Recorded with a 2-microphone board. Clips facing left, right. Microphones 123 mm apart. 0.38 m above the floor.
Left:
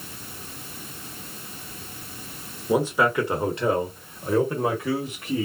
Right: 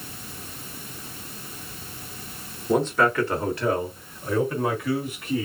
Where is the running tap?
I don't hear a running tap.